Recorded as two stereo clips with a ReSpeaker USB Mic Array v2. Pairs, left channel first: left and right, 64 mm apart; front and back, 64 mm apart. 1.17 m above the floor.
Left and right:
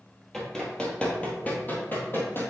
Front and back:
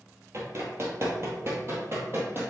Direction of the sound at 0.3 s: 175° left.